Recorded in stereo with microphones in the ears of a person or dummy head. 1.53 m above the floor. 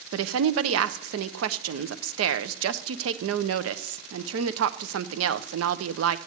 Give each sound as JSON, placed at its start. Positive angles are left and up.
{"t": 0.1, "sound": "a woman speaking", "side_deg": -85, "distance_m": 0.9}